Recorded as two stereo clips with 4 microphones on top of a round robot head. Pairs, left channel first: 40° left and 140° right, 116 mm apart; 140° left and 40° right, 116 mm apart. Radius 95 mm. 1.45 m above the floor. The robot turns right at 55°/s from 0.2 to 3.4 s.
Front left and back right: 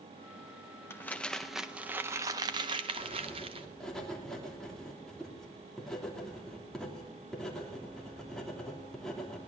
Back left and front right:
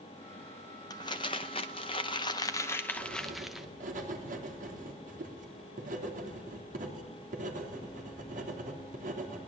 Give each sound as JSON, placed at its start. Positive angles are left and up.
{"t": 0.9, "sound": "crumpling", "azimuth_deg": 95, "distance_m": 0.6}
{"t": 3.0, "sound": "writing", "azimuth_deg": -70, "distance_m": 3.0}